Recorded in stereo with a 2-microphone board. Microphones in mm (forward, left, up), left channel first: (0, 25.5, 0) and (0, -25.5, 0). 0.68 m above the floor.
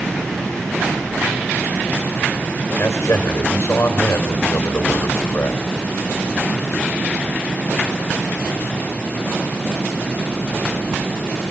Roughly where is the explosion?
No explosion in this recording.